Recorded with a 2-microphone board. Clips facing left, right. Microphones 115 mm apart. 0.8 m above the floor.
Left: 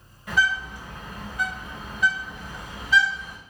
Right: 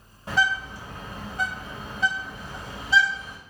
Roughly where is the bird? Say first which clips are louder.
Even; right.